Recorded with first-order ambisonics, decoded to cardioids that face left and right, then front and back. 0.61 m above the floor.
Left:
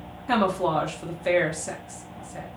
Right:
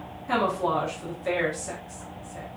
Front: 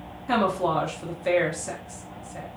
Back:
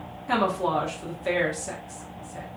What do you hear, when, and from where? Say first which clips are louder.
0.3 s a woman speaking: left 2 dB, front 1 dB; 75° left, 0.6 m